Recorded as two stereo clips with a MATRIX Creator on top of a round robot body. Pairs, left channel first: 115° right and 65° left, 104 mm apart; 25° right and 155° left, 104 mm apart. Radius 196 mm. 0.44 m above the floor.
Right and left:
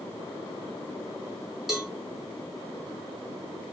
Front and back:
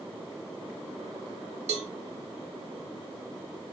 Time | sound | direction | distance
1.7 | a cowbell | 155° left | 1.9 m